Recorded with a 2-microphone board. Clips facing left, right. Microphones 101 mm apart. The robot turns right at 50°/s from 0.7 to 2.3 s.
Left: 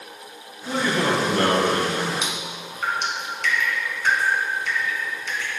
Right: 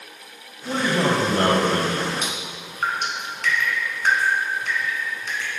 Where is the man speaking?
160° right, 1.2 m; by 2.1 s 90° right, 1.2 m.